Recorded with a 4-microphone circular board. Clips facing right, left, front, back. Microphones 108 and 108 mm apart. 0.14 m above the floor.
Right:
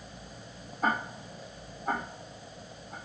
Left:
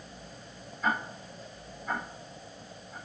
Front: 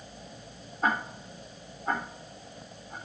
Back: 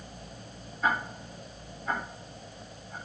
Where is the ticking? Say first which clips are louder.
Right 1 dB, even; 55° right, 4.5 m.